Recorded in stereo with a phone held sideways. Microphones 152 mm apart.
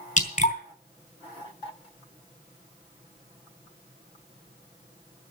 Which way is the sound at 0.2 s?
55° left (ahead or behind).